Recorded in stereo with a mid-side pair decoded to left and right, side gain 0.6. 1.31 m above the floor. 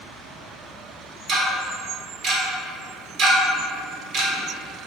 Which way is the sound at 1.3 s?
60° right.